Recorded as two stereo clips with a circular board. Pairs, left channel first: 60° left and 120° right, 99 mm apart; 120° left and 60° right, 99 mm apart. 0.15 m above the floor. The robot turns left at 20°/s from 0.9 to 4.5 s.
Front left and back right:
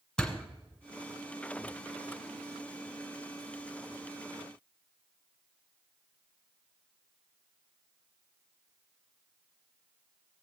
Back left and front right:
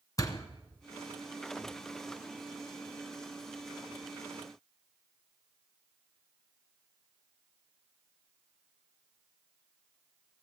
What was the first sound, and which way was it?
A door slam, 140° left.